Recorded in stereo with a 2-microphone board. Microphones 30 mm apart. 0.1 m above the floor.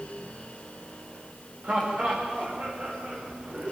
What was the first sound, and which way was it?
Laughter, 50° right (ahead or behind).